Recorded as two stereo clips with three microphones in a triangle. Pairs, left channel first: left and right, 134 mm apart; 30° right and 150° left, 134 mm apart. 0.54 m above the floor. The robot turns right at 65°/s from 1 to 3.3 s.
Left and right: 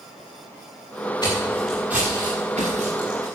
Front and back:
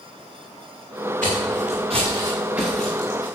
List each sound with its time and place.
1.2 s footsteps: 150° left, 5.5 m; by 3.3 s 90° right, 4.5 m